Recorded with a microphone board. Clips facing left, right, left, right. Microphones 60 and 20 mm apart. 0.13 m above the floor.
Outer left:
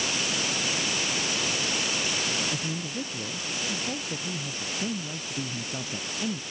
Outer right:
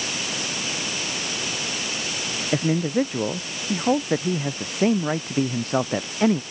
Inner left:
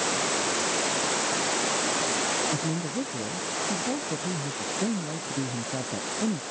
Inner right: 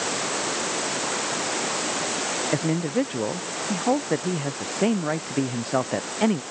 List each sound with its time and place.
2.5 s a man speaking: 60° right (ahead or behind); by 6.4 s 65° right (ahead or behind)